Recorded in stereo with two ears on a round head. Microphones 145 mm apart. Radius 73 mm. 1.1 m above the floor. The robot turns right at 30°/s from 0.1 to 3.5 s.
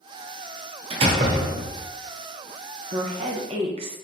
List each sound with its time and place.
0.9 s a door slam: 35° right (ahead or behind), 0.5 m; by 1.9 s 5° right (ahead or behind), 0.5 m
2.9 s a woman speaking: 40° right (ahead or behind), 0.6 m; by 4.0 s 35° right (ahead or behind), 0.6 m